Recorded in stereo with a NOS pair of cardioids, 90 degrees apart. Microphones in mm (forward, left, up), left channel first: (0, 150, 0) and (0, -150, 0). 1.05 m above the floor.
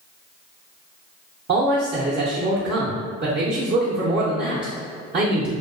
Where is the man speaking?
35° right, 0.6 m.